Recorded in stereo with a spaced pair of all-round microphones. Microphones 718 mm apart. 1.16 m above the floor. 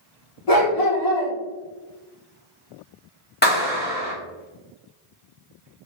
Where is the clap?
15° left (ahead or behind), 1.9 m.